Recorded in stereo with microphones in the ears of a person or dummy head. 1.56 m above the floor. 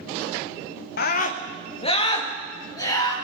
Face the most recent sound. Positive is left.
turn(degrees=15)  # may be behind; listen again after turning